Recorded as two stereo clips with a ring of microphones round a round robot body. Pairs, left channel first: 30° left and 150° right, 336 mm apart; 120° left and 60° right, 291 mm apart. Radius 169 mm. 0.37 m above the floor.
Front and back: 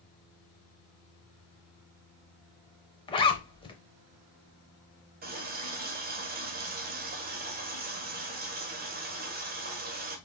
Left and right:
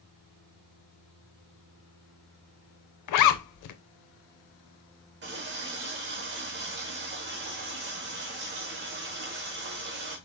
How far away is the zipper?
About 0.6 m.